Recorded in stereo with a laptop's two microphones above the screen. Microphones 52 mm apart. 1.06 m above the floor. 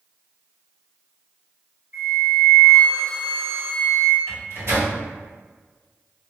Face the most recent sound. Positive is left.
turn(degrees=-65)  # may be behind; listen again after turning